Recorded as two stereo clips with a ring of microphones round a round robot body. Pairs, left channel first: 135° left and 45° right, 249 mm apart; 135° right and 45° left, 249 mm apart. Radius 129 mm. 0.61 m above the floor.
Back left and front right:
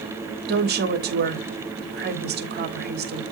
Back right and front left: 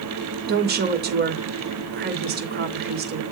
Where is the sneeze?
No sneeze in this recording.